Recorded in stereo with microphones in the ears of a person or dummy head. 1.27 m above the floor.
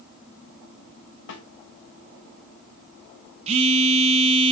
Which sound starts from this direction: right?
A phone buzzing, at 3.5 s.